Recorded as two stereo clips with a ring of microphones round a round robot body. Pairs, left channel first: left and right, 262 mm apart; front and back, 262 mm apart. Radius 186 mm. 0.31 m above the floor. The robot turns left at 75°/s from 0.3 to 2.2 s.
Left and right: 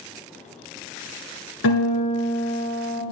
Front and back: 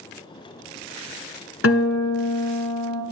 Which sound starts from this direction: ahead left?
A guitar, at 1.6 s.